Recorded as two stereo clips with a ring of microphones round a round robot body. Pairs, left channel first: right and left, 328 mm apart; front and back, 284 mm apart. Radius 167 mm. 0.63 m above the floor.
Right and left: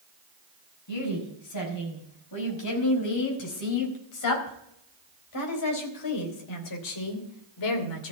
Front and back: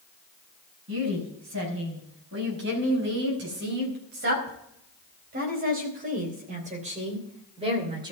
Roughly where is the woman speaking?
Behind right.